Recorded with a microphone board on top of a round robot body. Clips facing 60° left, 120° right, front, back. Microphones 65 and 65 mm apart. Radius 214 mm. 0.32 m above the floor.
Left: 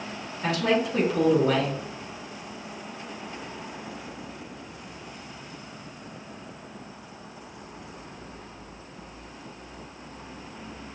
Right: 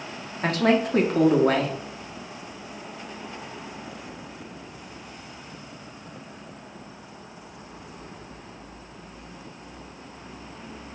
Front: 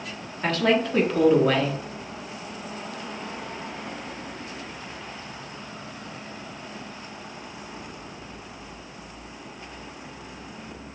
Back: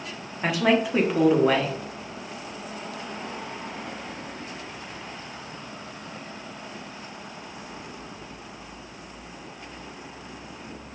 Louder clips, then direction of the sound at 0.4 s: Right 3 dB, even; 105° right.